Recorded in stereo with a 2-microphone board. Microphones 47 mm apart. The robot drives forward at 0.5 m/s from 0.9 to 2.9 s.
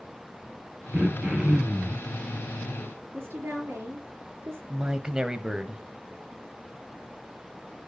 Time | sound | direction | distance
0.9 | throat clearing | 25° right (ahead or behind) | 2.5 m
3.1 | a woman speaking | 55° right (ahead or behind) | 4.5 m
4.7 | a man speaking | 15° right (ahead or behind) | 1.0 m